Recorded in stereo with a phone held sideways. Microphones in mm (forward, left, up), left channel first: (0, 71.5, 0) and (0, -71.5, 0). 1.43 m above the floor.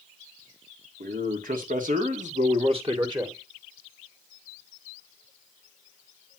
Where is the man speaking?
85° right, 2 m; by 3.4 s 25° right (ahead or behind), 1.7 m.